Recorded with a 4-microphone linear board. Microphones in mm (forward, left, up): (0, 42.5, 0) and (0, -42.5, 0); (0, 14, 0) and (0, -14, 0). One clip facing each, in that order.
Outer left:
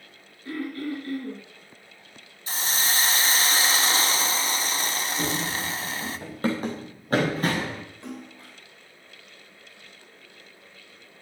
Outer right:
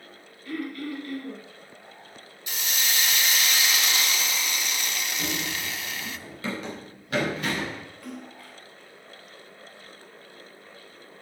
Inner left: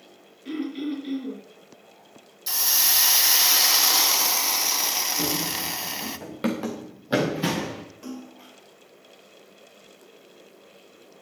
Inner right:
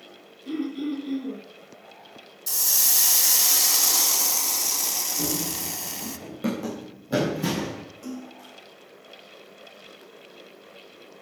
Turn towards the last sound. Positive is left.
turn(degrees=25)  # may be behind; listen again after turning